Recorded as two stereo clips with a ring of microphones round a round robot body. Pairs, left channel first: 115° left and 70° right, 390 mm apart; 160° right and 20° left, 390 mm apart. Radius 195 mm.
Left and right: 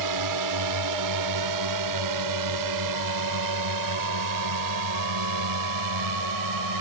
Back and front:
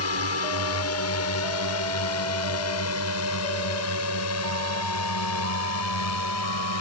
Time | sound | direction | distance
0.0 | a drone | 105° right | ?